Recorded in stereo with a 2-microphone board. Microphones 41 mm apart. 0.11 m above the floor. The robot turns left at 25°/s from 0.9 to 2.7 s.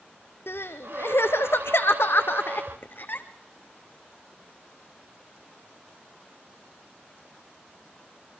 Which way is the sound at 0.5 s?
75° left (ahead or behind).